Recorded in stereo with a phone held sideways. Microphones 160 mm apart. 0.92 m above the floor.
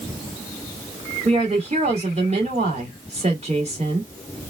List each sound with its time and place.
1.2 s a woman speaking: 45° right (ahead or behind), 2 m